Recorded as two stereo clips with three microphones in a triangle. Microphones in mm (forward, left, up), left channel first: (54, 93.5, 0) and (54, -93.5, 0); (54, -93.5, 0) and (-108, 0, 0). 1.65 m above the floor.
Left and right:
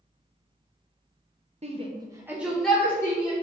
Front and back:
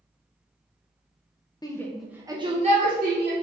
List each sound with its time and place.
1.6 s a shout: 85° right, 0.6 m; by 3.3 s 160° left, 0.9 m